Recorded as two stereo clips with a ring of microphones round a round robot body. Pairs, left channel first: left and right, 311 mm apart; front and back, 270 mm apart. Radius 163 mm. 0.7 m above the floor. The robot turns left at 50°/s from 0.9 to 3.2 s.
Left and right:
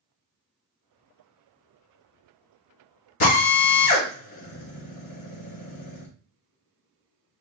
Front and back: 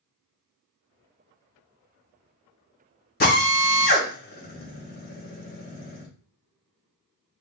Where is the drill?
50° left, 2.5 m.